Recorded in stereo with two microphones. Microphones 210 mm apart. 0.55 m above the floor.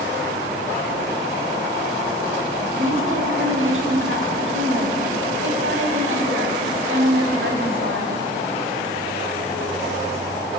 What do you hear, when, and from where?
2.8 s a woman speaking: 75° right (ahead or behind), 4 m